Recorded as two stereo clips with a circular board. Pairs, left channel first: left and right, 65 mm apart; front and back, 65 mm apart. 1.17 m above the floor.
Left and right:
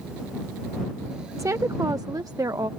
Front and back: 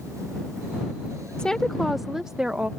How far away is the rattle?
No rattle in this recording.